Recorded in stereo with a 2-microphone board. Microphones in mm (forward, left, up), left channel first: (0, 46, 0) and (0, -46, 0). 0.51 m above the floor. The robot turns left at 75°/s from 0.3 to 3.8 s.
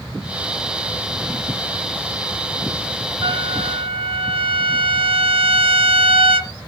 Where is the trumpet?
60° right, 1.5 m; by 6.5 s 100° right, 1.5 m.